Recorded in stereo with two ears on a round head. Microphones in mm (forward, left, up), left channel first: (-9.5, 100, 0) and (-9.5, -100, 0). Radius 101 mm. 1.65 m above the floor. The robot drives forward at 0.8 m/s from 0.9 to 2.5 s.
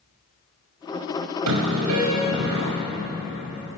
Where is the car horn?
80° right, 6 m.